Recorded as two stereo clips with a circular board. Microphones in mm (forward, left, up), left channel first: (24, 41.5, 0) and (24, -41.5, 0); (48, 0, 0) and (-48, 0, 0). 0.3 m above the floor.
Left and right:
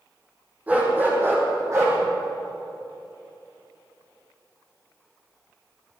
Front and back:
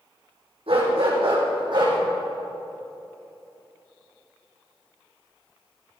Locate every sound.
0.7 s a dog barking: 160° right, 4 m; by 2.0 s 140° right, 4.5 m